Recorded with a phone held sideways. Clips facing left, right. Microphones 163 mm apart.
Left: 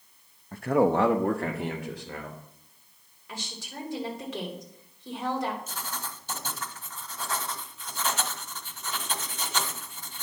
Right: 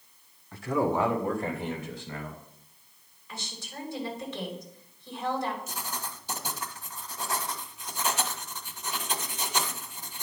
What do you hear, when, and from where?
0.5 s a man speaking: 40° left (ahead or behind), 0.6 m; by 2.4 s 60° left (ahead or behind), 2.5 m
3.3 s a woman speaking: 75° left (ahead or behind), 2.5 m
5.7 s writing: 10° right (ahead or behind), 0.9 m